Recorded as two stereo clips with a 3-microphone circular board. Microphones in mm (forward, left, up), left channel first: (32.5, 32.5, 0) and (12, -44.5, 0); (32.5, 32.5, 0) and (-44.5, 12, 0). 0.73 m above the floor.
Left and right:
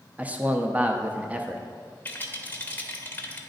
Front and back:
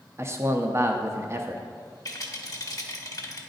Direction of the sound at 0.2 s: 160° right.